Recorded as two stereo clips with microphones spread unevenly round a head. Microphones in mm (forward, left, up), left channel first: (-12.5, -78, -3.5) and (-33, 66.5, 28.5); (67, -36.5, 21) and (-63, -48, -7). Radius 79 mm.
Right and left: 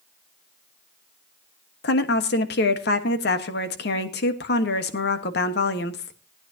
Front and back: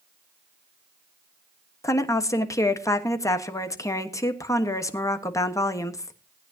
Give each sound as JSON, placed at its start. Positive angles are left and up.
{"t": 1.8, "sound": "a woman speaking", "azimuth_deg": -65, "distance_m": 1.4}